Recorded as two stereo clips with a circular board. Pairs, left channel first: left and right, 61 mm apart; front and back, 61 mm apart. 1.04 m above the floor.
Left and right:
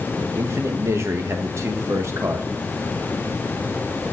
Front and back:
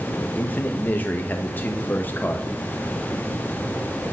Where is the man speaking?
60° right, 1.0 m.